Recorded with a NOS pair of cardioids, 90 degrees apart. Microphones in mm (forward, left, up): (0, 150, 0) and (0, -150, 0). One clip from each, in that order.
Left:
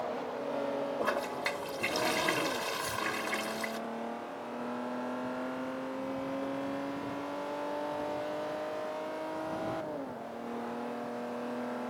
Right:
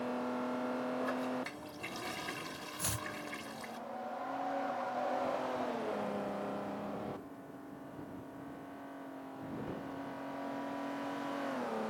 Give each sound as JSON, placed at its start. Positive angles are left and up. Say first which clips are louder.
{"t": 1.0, "sound": "a toilet flushing", "louder": "left 5 dB", "azimuth_deg": 65}
{"t": 2.8, "sound": "chopping", "louder": "left 6 dB", "azimuth_deg": -40}